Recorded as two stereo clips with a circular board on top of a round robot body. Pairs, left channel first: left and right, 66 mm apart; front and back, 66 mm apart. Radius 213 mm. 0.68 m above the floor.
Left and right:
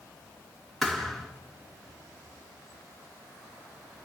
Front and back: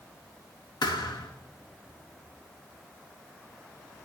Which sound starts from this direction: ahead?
A thud, at 0.8 s.